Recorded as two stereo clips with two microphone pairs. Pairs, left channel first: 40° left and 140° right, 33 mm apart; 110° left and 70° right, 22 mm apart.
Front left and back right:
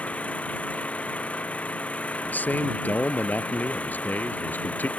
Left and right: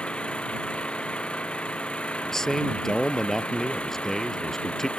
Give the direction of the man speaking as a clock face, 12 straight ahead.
10 o'clock.